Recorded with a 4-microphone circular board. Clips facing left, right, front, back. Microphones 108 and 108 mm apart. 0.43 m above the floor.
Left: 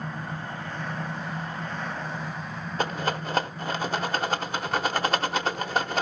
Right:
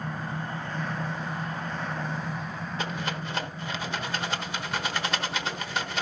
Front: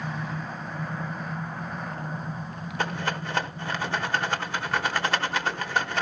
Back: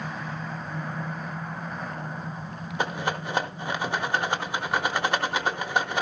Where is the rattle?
110° left, 1.0 m.